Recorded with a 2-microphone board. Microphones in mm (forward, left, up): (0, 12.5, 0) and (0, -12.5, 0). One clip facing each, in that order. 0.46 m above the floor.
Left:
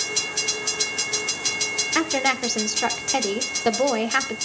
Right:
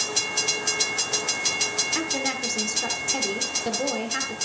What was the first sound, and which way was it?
A woman speaking, 35° left (ahead or behind).